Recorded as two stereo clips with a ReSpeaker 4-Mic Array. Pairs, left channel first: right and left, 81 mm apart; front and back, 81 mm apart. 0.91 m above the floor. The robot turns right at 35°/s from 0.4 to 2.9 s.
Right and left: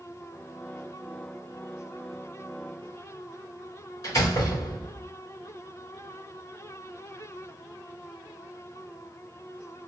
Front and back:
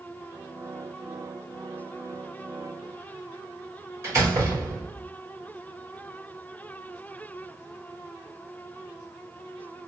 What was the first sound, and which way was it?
A door slam, 125° right.